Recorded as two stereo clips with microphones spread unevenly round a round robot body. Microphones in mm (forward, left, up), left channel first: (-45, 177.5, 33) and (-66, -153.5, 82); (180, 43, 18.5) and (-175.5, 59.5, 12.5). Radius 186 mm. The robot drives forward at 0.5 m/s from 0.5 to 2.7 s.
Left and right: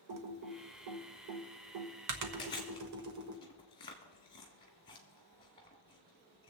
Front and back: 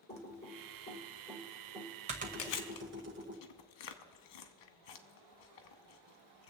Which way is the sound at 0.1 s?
75° right.